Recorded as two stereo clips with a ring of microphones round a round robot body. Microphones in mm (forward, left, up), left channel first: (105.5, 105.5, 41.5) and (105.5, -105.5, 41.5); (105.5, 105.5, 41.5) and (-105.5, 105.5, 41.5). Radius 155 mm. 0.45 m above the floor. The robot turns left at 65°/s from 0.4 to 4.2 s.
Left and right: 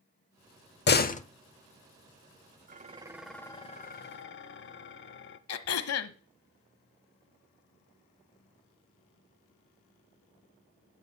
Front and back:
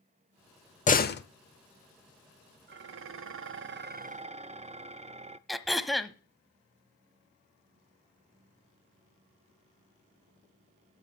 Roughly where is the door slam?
Ahead left.